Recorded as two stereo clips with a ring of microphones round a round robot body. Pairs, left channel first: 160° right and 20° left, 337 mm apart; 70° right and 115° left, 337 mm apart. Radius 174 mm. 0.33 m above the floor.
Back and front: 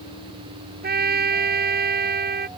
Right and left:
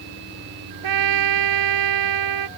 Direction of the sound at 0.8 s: 85° left.